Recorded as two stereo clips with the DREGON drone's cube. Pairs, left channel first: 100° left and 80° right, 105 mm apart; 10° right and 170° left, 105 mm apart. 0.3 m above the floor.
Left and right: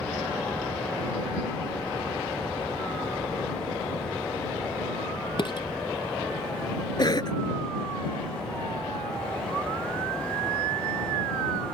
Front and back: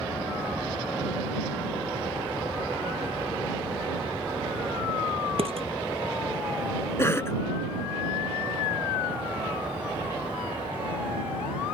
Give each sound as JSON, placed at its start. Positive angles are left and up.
{"t": 5.4, "sound": "dishes clattering", "azimuth_deg": 140}
{"t": 7.0, "sound": "a cough", "azimuth_deg": 55}